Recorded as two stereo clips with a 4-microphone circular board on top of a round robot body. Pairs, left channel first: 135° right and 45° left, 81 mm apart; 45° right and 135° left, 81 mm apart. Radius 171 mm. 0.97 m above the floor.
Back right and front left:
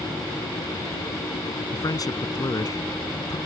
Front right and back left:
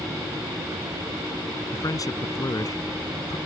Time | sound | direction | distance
1.7 | a man speaking | 90° right | ?